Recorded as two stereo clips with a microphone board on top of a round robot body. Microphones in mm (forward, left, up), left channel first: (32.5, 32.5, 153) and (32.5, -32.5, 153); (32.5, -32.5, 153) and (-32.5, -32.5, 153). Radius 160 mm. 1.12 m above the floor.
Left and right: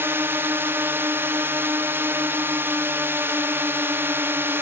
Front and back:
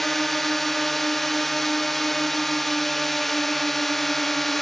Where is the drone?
85° right.